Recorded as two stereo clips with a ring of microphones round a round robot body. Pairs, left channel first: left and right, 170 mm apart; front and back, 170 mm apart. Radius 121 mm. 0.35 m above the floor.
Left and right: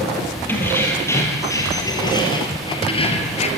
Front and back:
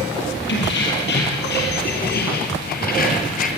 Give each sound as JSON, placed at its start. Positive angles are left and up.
{"t": 0.5, "sound": "keys jangling", "azimuth_deg": 10, "distance_m": 6.5}